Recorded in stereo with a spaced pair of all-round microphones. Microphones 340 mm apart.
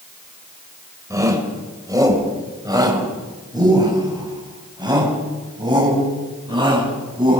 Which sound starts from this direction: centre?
A shout, at 1.1 s.